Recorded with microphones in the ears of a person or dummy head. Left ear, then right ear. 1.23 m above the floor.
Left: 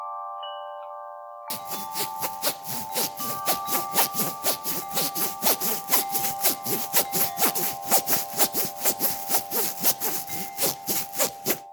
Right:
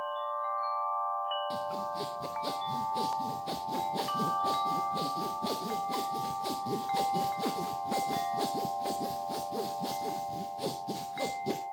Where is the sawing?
50° left (ahead or behind), 0.6 m.